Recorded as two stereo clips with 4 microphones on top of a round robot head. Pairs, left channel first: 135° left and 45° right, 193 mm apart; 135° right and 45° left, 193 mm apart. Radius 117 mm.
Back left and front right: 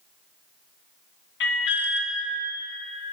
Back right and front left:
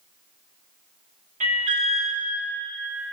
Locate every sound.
1.4 s an alarm: 105° left, 1.2 m